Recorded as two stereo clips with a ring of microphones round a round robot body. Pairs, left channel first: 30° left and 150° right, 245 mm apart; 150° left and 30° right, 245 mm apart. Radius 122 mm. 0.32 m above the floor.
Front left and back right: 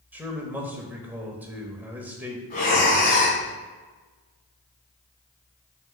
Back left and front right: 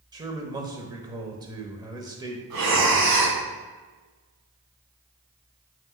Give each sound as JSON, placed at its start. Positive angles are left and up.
{"t": 0.1, "sound": "a man speaking", "azimuth_deg": -80, "distance_m": 0.9}
{"t": 2.5, "sound": "breathing", "azimuth_deg": -25, "distance_m": 1.9}